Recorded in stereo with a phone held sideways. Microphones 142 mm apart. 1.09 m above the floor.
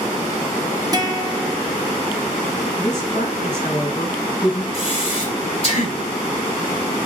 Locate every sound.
0.9 s a guitar: 25° right (ahead or behind), 0.9 m
2.8 s a woman speaking: 30° left (ahead or behind), 5 m
4.7 s breathing: 45° left (ahead or behind), 3 m